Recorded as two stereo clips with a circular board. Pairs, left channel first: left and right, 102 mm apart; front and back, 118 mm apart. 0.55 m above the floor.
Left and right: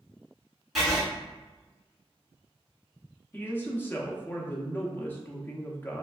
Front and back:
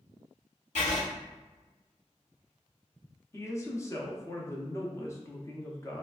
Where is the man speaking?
35° left, 0.7 m.